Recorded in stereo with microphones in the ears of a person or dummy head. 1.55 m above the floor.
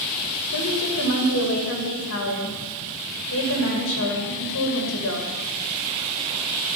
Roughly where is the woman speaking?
Left.